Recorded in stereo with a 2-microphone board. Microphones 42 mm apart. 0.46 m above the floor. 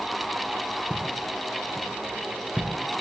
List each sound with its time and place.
0.9 s footsteps: 25° right (ahead or behind), 4.5 m; by 2.7 s 35° right (ahead or behind), 3.5 m